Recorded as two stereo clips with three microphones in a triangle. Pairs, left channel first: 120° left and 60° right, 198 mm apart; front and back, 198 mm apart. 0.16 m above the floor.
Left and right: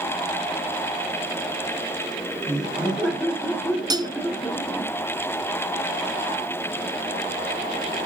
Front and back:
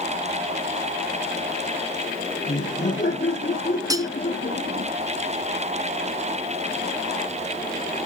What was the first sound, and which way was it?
Laughter, 45° left.